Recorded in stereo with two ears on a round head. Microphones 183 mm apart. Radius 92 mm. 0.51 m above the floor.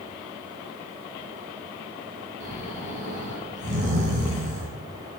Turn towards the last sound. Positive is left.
turn(degrees=-35)  # may be behind; listen again after turning